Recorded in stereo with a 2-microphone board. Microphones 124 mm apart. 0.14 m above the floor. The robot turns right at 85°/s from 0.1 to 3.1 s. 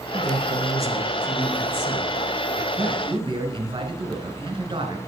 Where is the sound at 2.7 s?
130° right, 1.4 m; by 5.0 s 100° right, 1.4 m.